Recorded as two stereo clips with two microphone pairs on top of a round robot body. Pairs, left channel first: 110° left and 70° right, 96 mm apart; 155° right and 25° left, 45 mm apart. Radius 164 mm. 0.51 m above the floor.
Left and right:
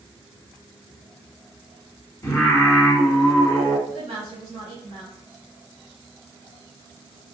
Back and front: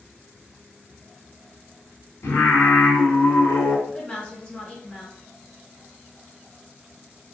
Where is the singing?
175° left, 0.9 m.